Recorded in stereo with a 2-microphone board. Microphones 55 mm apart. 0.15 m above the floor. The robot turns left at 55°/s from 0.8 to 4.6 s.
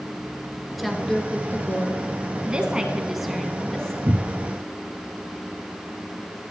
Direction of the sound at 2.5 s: 20° right (ahead or behind).